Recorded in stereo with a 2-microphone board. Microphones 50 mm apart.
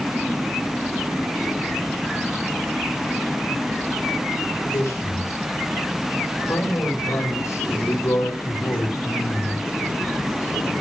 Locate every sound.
4.6 s a man speaking: 90° left, 9 m; by 9.7 s 80° left, 4 m